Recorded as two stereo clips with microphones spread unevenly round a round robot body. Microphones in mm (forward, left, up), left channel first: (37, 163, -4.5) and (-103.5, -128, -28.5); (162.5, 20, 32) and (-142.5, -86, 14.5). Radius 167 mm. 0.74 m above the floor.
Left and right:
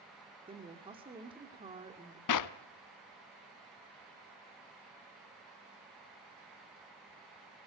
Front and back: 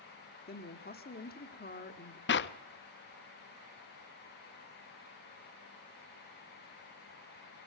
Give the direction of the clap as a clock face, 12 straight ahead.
10 o'clock.